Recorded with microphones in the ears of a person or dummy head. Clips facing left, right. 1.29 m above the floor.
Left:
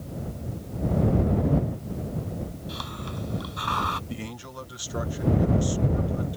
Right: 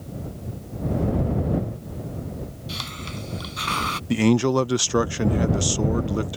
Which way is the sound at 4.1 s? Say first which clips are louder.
Right 19 dB; 75° right (ahead or behind).